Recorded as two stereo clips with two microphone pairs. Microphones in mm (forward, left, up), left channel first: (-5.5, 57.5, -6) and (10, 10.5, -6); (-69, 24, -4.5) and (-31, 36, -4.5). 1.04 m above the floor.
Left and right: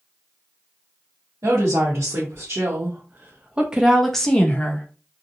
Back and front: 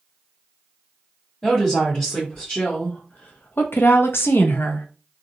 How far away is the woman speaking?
About 1.3 m.